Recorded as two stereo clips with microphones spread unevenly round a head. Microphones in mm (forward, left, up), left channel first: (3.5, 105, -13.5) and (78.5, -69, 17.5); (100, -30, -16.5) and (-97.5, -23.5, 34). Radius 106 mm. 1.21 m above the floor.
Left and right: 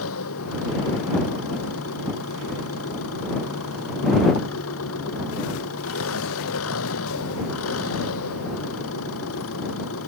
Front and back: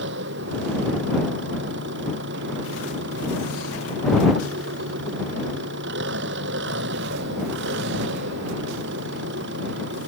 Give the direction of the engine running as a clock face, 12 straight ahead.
7 o'clock.